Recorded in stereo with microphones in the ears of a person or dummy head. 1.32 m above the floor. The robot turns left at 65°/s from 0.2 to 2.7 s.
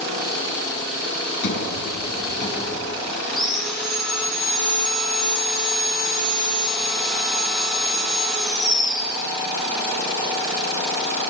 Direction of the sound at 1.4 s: 120° left.